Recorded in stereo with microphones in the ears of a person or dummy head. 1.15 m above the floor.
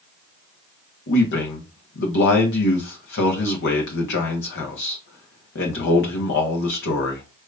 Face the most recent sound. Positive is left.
turn(degrees=65)  # may be behind; listen again after turning